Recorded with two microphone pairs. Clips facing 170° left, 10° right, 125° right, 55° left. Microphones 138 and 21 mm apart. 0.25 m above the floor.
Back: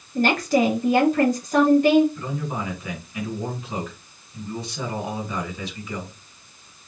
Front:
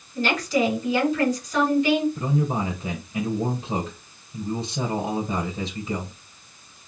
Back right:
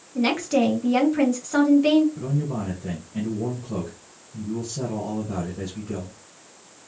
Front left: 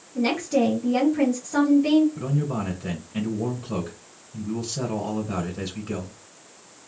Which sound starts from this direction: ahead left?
A man speaking, at 2.1 s.